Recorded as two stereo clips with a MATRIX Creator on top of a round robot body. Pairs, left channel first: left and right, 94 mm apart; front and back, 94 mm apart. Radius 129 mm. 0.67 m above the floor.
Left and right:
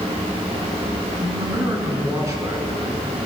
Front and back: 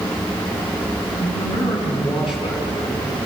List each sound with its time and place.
1.2 s a man speaking: 30° right, 9.5 m